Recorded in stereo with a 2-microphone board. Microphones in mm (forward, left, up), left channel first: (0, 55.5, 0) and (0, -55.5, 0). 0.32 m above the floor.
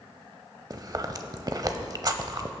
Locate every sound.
0.7 s chewing: 40° right (ahead or behind), 0.8 m